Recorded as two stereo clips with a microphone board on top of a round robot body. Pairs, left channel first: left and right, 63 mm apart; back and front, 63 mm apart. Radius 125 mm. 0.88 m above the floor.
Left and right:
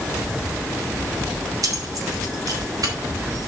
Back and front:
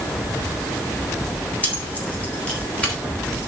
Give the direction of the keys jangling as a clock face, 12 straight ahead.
4 o'clock.